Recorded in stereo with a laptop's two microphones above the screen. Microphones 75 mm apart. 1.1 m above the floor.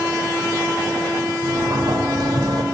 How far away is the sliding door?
About 1.8 m.